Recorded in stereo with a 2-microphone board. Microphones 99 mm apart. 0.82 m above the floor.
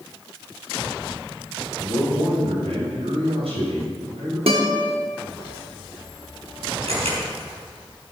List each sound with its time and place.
1.8 s a man speaking: 75° right (ahead or behind), 5 m
4.5 s a guitar: 75° right (ahead or behind), 1.6 m
6.9 s a camera shutter: 85° right, 5 m